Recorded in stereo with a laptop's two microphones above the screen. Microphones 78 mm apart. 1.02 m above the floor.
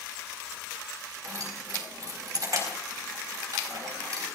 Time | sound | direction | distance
1.2 | keys jangling | 50° right (ahead or behind) | 4.5 m